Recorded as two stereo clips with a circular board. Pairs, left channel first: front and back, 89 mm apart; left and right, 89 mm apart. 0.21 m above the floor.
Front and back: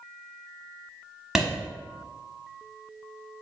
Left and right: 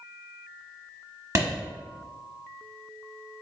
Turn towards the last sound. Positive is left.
turn(degrees=-95)